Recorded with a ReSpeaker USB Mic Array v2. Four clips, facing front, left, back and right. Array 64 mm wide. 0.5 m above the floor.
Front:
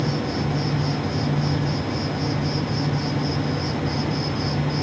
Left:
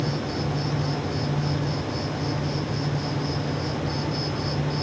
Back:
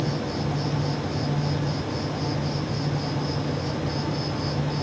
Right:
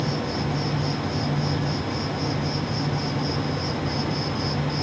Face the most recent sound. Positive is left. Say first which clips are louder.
# right 1 dB, front 3 dB
turn(degrees=-35)